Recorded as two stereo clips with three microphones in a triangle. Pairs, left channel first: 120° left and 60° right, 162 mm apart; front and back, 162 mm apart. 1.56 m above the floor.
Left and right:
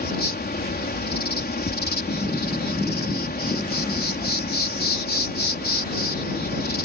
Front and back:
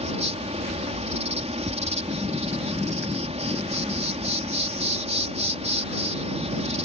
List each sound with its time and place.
0.0 s an insect: 130° left